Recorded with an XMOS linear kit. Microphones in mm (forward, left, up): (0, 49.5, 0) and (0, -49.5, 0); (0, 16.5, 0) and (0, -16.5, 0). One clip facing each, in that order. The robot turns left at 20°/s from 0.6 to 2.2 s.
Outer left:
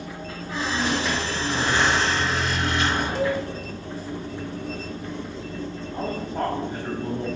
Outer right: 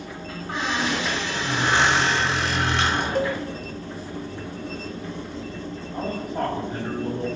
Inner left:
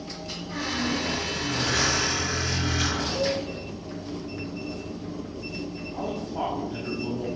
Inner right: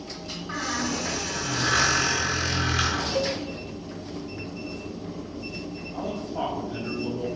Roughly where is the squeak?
Ahead right.